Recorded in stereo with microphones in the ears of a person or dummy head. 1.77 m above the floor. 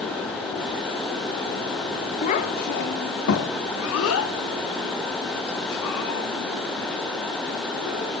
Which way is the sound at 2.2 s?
35° left (ahead or behind).